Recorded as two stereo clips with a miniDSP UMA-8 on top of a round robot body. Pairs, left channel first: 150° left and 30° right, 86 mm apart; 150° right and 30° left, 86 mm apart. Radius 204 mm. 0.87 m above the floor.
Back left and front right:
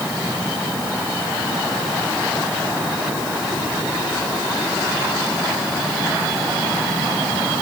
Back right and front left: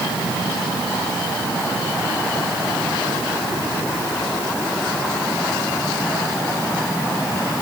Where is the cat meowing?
No cat meowing in this recording.